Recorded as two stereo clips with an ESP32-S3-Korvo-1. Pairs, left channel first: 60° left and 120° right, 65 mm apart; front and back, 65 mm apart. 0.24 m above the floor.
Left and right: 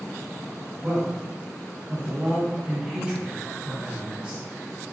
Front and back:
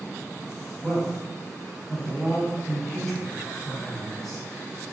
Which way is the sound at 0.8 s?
80° right.